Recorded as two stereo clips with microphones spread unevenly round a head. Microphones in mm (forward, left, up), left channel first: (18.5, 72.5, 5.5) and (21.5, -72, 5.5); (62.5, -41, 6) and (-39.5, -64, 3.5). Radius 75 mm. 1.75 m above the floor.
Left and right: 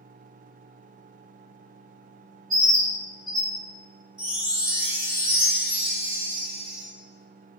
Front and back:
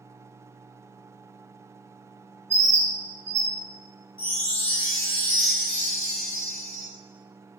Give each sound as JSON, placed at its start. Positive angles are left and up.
{"t": 2.5, "sound": "a bird", "azimuth_deg": -160, "distance_m": 1.2}
{"t": 4.2, "sound": "a chime", "azimuth_deg": -60, "distance_m": 2.0}